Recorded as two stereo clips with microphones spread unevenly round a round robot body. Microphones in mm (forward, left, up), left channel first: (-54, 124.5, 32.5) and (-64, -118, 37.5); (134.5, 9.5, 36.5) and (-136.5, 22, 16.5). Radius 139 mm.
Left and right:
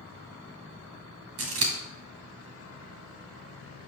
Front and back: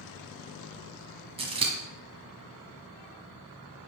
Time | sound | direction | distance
1.4 | scissors | 110° right | 2 m